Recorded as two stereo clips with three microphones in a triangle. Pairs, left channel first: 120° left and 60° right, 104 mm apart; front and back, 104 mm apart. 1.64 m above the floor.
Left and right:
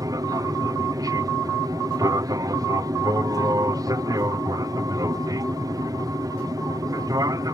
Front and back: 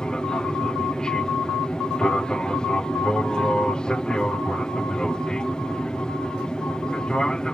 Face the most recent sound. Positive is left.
turn(degrees=-75)